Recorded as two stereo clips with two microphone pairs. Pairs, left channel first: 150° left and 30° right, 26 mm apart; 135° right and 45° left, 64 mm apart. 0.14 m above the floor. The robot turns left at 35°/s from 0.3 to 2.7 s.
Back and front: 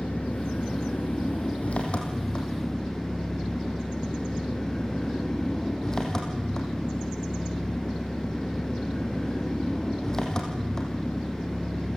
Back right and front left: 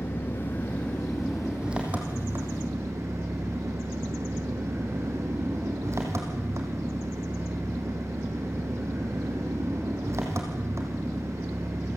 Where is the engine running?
170° left, 4 m; by 12.0 s 85° left, 4 m.